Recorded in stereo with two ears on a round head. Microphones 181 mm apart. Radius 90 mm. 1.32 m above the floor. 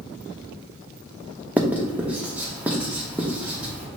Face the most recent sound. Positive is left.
turn(degrees=-10)  # may be behind; listen again after turning